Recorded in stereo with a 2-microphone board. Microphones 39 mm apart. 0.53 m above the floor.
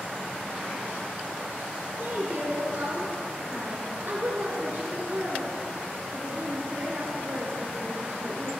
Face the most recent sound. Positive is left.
turn(degrees=-55)  # may be behind; listen again after turning